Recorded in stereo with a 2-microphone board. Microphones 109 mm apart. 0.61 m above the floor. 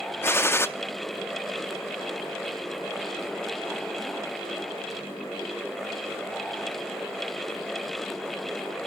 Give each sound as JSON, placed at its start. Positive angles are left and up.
{"t": 0.2, "sound": "a gunshot", "side_deg": 20, "distance_m": 0.6}